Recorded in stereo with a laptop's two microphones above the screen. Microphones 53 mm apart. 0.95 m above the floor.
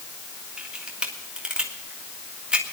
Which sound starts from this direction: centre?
A camera shutter, at 0.6 s.